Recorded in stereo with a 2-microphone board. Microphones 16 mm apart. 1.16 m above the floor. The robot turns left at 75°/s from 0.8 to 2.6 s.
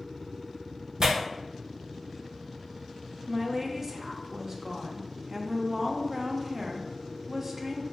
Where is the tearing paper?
50° right (ahead or behind), 0.7 m; by 1.1 s 45° right (ahead or behind), 0.7 m.